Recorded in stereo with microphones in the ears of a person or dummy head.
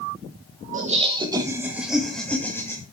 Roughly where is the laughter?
Right.